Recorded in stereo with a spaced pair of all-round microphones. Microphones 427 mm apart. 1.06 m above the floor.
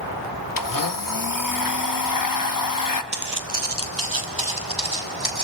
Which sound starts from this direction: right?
Footsteps, at 3.1 s.